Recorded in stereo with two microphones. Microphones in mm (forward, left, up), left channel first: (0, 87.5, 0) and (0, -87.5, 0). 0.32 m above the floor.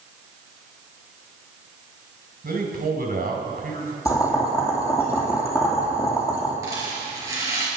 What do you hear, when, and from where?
2.4 s a man speaking: 60° right (ahead or behind), 2.5 m
4.0 s boiling: 20° left (ahead or behind), 3 m
6.6 s a rattle: 20° right (ahead or behind), 4.5 m